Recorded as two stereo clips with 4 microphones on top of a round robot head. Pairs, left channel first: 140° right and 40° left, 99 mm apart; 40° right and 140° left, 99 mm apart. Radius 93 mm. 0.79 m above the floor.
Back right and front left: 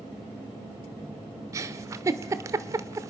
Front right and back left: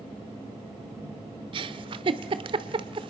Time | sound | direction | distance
1.5 | a giggle | 100° left | 0.8 m